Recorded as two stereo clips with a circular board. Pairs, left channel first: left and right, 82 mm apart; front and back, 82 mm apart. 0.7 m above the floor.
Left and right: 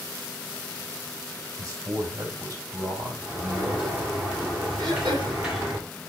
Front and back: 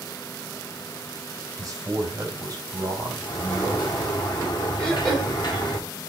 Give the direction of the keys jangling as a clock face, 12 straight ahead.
No keys jangling in this recording.